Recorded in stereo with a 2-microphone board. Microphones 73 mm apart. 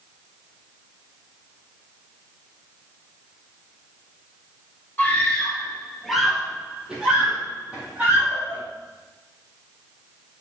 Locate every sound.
5.0 s a scream: 25° left (ahead or behind), 2 m; by 8.6 s 25° right (ahead or behind), 4.5 m